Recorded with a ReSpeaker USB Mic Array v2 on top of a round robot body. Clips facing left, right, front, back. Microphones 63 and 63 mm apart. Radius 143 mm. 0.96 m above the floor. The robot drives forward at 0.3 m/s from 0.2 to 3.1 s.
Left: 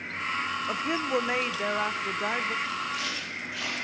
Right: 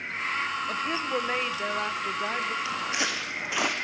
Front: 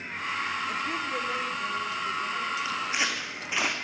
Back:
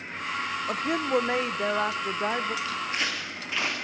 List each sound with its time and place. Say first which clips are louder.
0.7 s a woman speaking: left 1 dB, back 4 dB; 160° left, 0.9 m; by 2.5 s 170° left, 1.3 m
2.6 s footsteps: right 2 dB, front 1 dB; 80° right, 2.5 m